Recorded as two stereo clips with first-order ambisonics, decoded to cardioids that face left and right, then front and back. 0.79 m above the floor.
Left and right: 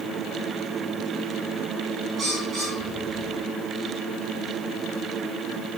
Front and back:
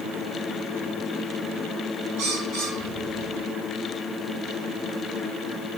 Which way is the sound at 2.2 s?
150° right.